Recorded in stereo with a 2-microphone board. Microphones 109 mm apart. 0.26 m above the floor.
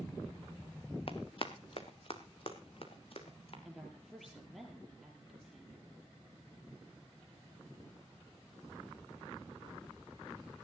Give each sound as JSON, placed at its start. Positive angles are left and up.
{"t": 1.1, "sound": "running footsteps", "side_deg": 50, "distance_m": 1.9}
{"t": 3.6, "sound": "a woman speaking", "side_deg": 0, "distance_m": 6.5}